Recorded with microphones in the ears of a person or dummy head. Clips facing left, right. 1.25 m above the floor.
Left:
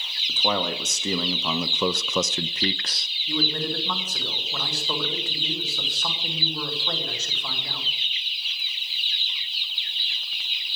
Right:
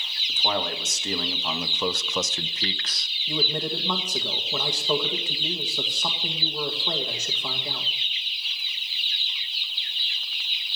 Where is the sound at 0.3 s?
65° left (ahead or behind), 1.7 m; by 3.1 s 25° left (ahead or behind), 0.6 m.